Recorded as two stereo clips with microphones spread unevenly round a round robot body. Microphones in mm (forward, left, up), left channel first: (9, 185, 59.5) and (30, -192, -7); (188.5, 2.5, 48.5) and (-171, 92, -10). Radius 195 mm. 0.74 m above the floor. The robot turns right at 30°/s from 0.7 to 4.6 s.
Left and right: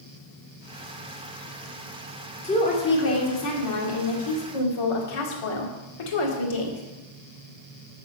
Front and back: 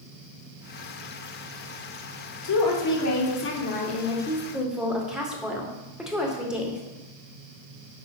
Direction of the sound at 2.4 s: 15° left.